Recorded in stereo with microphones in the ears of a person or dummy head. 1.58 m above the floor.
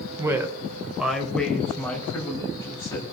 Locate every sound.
0.2 s a woman speaking: 25° right (ahead or behind), 1.4 m; by 3.0 s 15° left (ahead or behind), 3.5 m